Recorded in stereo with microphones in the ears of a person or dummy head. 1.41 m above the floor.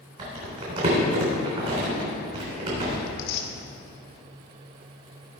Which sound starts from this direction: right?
Crumpling, at 0.2 s.